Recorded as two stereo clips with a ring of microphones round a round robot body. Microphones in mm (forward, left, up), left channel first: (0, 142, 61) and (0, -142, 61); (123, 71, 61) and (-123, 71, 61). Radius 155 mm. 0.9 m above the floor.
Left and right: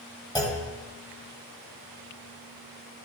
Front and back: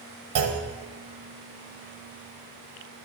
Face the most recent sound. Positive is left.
turn(degrees=165)